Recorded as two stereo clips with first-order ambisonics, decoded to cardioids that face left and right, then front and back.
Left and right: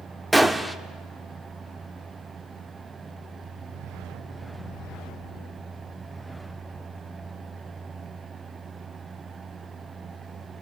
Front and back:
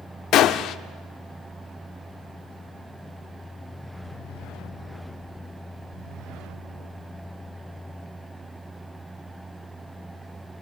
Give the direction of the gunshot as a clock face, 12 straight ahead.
12 o'clock.